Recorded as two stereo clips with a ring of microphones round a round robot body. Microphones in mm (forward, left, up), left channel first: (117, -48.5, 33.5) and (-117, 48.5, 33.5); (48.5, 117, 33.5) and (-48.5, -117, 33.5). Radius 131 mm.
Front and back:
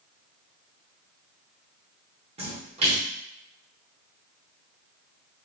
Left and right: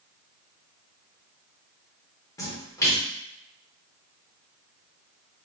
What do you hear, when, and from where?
2.4 s a splash: 130° left, 1.0 m